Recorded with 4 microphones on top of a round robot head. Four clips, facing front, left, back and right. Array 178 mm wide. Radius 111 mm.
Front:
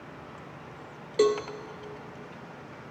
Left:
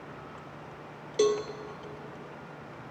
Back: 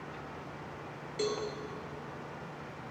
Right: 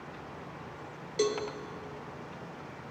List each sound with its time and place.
1.2 s a cowbell: 20° left, 0.5 m